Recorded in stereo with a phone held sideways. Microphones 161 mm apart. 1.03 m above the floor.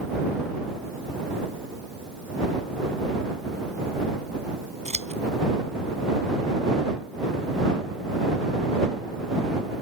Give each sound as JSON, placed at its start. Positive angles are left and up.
{"t": 4.8, "sound": "scissors", "side_deg": -45}